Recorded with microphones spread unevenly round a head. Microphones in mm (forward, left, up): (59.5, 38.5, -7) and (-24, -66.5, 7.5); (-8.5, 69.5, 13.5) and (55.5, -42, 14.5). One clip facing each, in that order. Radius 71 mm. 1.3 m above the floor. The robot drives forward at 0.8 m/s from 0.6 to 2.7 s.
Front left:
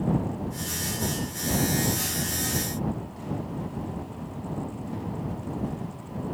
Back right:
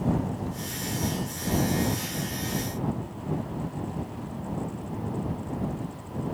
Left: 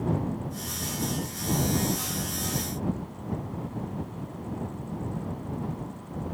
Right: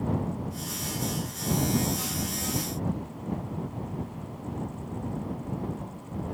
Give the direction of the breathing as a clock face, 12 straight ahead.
I don't hear breathing.